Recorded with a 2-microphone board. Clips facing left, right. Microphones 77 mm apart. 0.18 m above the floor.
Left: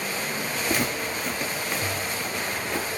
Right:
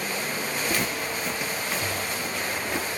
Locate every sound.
0.7 s footsteps: 10° left (ahead or behind), 1.3 m; by 2.9 s 15° right (ahead or behind), 2 m